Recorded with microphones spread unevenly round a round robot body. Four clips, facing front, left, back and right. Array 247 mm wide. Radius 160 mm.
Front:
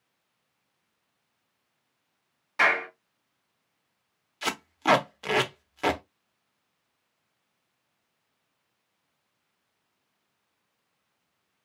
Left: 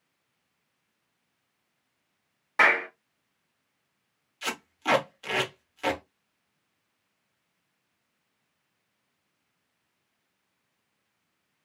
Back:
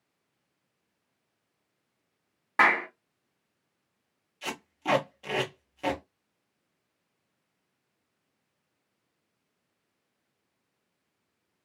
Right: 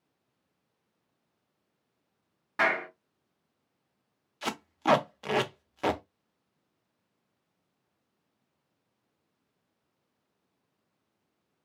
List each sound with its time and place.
2.6 s a clap: straight behind, 1.1 m
4.4 s tape being pulled: 15° right, 0.9 m